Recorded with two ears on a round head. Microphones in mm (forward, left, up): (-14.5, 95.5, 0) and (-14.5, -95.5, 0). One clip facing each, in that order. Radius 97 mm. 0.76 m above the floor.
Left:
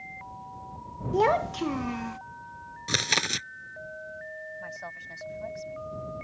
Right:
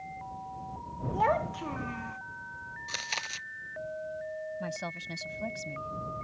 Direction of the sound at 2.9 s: 75° left (ahead or behind).